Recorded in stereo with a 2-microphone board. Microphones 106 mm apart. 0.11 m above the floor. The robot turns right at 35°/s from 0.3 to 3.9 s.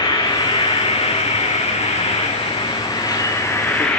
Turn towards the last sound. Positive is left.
turn(degrees=170)